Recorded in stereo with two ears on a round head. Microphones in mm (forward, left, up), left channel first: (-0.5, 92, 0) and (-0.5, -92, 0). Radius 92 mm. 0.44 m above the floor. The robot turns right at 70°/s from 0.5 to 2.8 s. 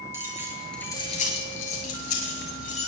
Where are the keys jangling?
10° right (ahead or behind), 6 m; by 2.9 s 30° left (ahead or behind), 6 m.